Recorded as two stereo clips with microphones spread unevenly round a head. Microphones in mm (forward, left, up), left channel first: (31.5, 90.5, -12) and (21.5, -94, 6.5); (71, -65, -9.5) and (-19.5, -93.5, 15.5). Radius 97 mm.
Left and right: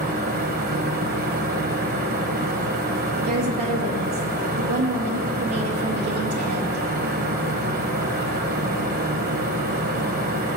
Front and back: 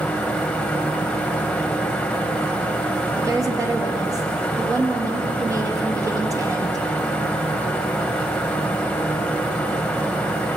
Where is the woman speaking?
105° right, 2 m.